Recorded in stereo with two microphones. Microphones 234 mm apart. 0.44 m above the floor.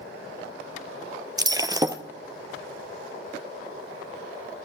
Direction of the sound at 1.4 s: 15° right (ahead or behind).